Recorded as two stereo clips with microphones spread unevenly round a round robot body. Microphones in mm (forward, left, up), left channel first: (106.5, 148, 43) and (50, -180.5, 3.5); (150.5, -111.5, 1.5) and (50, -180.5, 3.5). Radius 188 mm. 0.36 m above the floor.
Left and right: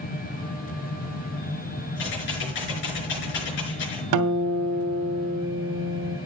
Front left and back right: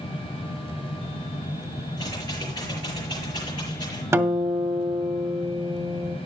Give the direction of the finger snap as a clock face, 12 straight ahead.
I don't hear a finger snap.